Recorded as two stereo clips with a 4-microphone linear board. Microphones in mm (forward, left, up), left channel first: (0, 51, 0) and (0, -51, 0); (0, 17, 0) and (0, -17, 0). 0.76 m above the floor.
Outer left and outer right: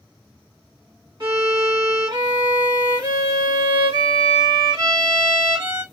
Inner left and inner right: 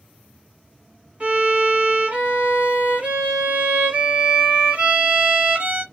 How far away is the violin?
About 1.6 m.